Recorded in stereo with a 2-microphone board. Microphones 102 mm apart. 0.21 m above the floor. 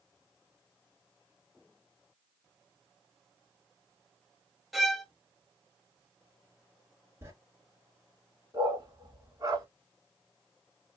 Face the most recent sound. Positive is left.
turn(degrees=-45)  # may be behind; listen again after turning